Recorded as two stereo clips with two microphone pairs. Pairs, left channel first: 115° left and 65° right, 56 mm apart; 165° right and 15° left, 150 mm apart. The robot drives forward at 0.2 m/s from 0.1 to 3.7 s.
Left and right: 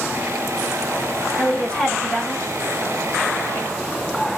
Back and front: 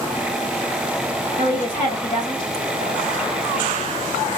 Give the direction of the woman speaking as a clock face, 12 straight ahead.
6 o'clock.